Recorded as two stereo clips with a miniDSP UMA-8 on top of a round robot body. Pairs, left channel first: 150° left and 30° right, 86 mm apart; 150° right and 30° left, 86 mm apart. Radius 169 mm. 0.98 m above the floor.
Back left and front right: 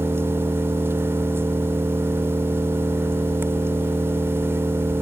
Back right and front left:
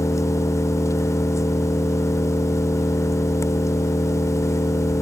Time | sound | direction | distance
0.0 | an engine running | 95° right | ?